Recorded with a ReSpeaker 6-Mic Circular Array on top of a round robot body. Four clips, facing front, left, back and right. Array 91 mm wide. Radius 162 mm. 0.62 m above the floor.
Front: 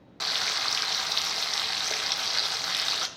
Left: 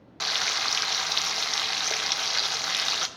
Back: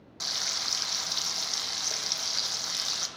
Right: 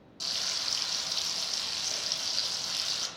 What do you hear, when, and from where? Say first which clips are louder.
0.2 s frying: left 11 dB, front 7 dB; 65° left, 1.7 m